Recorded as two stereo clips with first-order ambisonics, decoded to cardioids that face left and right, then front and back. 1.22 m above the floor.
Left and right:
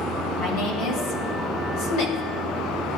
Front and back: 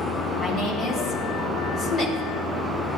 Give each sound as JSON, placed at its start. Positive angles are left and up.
{"t": 0.4, "sound": "a woman speaking", "azimuth_deg": 70, "distance_m": 3.0}